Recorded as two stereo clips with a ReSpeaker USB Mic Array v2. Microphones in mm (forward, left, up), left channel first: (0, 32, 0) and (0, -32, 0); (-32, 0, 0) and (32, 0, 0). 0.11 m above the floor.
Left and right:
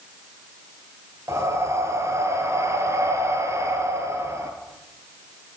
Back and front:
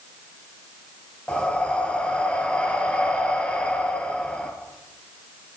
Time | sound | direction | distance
1.3 | breathing | 110° right | 1.7 m